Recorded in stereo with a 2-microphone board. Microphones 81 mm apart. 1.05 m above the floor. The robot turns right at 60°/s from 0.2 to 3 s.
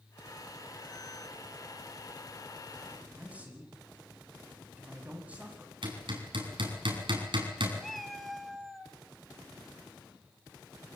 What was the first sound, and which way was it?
A man speaking, 15° right (ahead or behind).